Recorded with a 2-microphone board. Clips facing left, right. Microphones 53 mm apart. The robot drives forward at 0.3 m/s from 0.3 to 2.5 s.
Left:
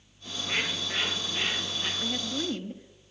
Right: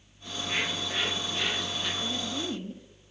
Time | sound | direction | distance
0.2 | a bird | 25° left (ahead or behind) | 3.5 m
2.0 | a woman speaking | 35° left (ahead or behind) | 2.5 m